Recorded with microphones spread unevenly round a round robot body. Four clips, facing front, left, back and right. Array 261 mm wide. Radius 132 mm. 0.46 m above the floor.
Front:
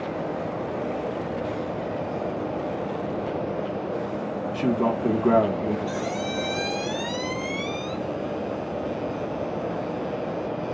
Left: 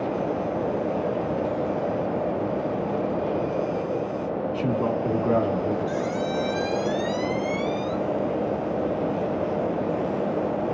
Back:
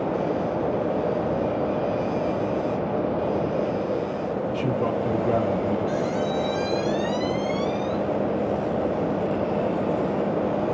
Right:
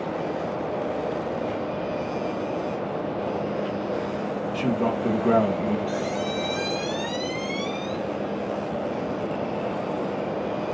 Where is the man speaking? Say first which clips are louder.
Right 1 dB, front 4 dB; 10° right, 3.5 m.